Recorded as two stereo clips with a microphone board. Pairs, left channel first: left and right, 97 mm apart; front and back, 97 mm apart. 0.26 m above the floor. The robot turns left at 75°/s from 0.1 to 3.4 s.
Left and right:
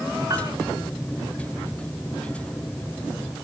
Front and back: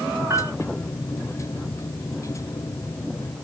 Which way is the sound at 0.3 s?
125° right.